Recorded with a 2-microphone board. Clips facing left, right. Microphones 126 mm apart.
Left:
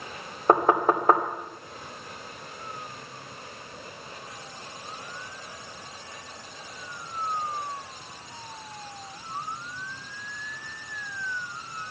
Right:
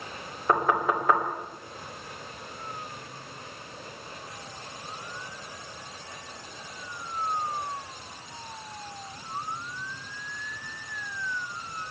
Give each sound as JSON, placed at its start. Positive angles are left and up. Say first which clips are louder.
{"t": 0.5, "sound": "knocking", "louder": "left 4 dB", "side_deg": 40, "distance_m": 2.0}